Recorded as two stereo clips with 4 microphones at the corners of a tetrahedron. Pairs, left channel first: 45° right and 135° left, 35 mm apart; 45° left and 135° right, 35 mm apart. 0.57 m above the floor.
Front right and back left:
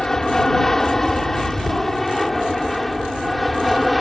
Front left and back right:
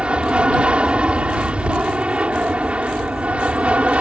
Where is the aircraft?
110° right; by 4.0 s 135° right.